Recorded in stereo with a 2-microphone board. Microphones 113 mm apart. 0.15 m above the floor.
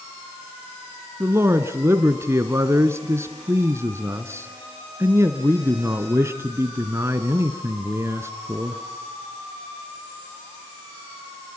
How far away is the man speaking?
About 1.3 m.